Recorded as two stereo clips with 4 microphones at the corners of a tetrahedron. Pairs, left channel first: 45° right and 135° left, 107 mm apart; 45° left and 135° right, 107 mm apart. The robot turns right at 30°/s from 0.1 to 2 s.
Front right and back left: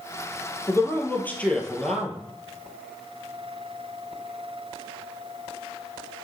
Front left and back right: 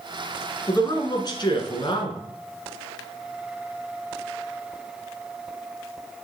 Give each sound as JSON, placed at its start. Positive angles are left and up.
{"t": 0.7, "sound": "a man speaking", "azimuth_deg": 5, "distance_m": 1.6}